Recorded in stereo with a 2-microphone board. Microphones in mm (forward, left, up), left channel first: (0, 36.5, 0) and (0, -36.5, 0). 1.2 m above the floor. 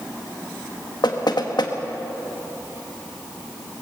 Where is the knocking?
65° left (ahead or behind), 1.6 m.